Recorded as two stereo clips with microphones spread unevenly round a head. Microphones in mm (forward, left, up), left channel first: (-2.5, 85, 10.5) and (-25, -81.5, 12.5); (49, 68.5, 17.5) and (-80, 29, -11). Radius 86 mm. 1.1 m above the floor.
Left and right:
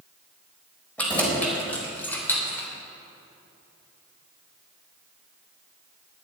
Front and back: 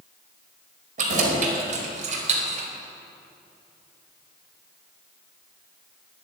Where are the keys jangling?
165° left, 4 m; by 2.7 s 160° left, 2.5 m.